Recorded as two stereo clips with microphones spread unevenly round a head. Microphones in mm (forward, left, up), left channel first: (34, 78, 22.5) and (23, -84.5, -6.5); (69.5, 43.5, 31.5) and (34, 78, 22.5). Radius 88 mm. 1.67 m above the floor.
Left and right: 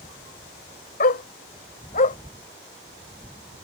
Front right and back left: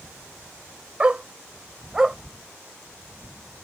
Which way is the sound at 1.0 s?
65° left.